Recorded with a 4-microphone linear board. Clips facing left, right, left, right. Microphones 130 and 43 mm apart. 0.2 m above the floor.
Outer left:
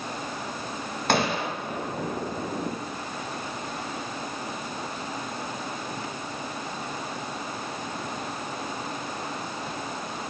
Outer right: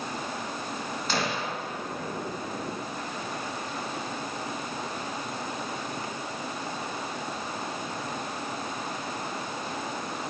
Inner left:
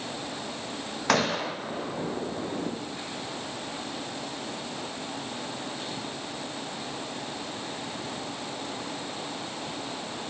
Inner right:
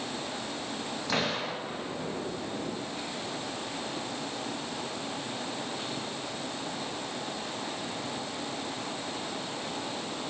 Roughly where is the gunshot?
Left.